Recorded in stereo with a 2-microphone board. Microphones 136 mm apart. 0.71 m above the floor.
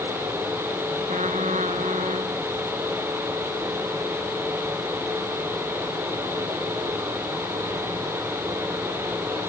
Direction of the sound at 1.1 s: 60° right (ahead or behind).